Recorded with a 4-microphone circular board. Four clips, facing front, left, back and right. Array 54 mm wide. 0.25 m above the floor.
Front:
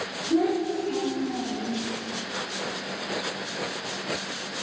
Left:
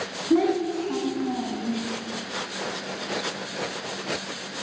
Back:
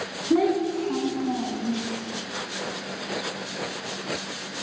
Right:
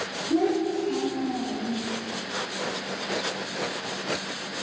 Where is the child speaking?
140° left, 1.1 m.